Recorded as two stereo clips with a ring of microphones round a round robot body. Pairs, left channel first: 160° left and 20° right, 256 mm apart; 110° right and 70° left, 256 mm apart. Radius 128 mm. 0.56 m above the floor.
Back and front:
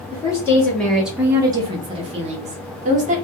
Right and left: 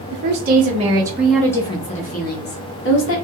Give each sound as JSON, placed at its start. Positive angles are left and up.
{"t": 0.1, "sound": "a woman speaking", "azimuth_deg": 85, "distance_m": 0.9}